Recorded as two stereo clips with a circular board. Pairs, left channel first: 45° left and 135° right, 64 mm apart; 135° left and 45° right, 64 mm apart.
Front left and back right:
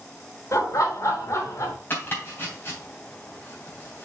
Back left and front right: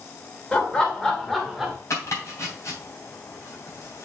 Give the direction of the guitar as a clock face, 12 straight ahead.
I don't hear a guitar.